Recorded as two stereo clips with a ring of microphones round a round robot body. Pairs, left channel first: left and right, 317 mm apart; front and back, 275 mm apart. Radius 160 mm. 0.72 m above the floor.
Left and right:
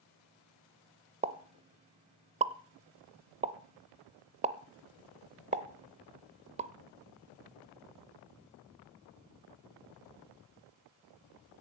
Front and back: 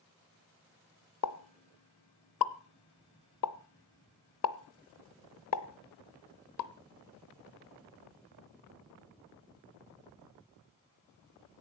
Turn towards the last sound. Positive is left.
turn(degrees=-20)